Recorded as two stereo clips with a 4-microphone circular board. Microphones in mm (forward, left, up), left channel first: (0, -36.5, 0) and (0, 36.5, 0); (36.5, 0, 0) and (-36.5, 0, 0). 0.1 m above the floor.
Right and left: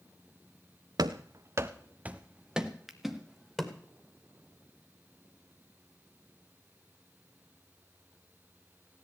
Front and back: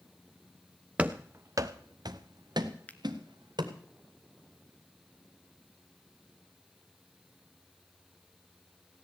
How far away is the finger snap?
About 1.0 m.